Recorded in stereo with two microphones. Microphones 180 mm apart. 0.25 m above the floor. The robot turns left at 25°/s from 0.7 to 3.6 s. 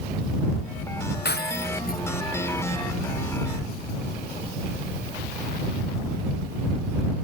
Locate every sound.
1.2 s breaking glass: 80° left; by 2.0 s 60° left (ahead or behind)